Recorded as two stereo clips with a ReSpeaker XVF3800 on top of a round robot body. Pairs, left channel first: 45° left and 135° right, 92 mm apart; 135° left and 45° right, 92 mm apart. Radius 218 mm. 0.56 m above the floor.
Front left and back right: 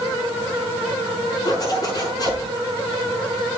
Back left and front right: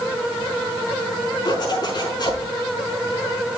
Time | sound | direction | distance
1.4 | a zipper | 90° left | 5.5 m